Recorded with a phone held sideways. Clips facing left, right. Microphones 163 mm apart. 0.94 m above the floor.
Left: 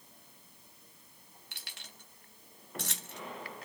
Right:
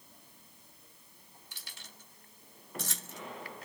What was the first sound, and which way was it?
Keys jangling, 65° left (ahead or behind).